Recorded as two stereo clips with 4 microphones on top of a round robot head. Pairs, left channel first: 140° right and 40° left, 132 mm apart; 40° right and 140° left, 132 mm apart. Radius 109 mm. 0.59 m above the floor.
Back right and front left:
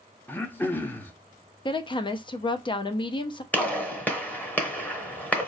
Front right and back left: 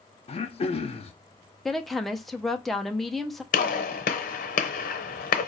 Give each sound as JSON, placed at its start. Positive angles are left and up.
{"t": 0.3, "sound": "throat clearing", "azimuth_deg": -70, "distance_m": 0.7}
{"t": 1.6, "sound": "a woman speaking", "azimuth_deg": -130, "distance_m": 0.7}
{"t": 3.5, "sound": "a gunshot", "azimuth_deg": -60, "distance_m": 0.8}